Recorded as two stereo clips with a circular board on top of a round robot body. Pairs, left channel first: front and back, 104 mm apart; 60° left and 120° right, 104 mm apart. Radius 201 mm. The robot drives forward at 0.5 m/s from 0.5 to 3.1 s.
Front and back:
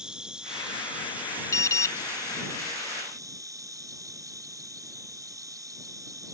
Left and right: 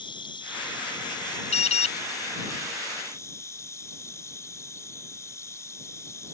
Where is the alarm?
60° left.